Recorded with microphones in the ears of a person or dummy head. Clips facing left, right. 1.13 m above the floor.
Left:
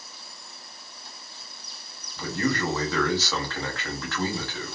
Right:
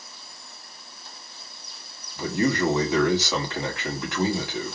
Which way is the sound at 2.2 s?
10° right (ahead or behind).